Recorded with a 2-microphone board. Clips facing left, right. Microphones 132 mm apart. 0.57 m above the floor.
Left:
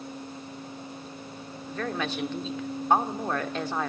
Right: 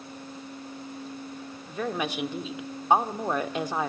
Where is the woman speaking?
15° right (ahead or behind), 1.1 m.